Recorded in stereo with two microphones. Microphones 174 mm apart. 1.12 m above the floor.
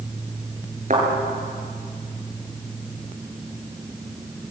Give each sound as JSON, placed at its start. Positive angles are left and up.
{"t": 0.9, "sound": "a thud", "side_deg": -45, "distance_m": 6.5}